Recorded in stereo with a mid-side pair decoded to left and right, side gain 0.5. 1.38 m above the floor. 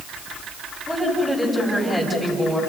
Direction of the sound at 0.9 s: 5° right.